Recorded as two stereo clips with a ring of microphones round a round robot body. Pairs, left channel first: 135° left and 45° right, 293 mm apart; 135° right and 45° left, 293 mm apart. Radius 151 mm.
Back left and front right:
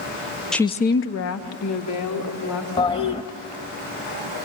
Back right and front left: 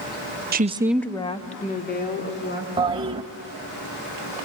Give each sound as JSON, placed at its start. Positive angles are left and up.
{"t": 0.5, "sound": "a woman speaking", "azimuth_deg": 50, "distance_m": 0.7}
{"t": 2.8, "sound": "a toilet flushing", "azimuth_deg": 90, "distance_m": 0.5}